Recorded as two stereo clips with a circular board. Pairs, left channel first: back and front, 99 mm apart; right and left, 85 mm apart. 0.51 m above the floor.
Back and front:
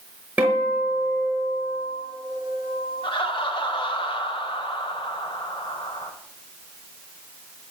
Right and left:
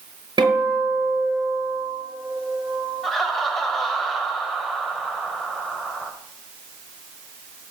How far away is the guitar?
About 6 m.